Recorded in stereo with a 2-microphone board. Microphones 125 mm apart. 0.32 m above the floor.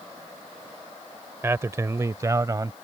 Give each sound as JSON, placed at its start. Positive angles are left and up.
{"t": 1.4, "sound": "a man speaking", "side_deg": -20}